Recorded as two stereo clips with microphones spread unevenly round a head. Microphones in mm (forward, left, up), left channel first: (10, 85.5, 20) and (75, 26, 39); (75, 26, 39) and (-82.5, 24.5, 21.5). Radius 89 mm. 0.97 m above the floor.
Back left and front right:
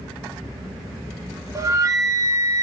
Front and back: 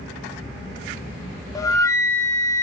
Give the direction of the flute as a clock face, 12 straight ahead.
2 o'clock.